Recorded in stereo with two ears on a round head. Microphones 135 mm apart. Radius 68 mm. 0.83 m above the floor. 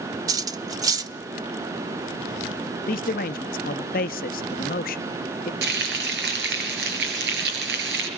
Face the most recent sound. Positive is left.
turn(degrees=-85)